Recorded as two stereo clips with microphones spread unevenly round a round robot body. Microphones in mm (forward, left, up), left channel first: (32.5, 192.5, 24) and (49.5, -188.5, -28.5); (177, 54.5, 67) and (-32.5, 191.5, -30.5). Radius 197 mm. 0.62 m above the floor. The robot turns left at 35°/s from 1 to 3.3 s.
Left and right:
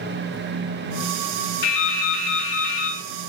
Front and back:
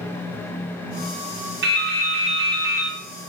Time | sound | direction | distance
1.6 | dripping | 110° left | 1.8 m